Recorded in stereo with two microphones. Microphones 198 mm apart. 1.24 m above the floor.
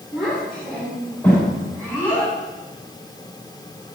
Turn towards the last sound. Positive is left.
turn(degrees=15)  # may be behind; listen again after turning